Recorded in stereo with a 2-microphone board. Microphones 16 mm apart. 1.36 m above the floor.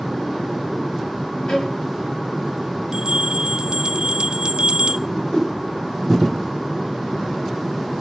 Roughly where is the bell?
Right.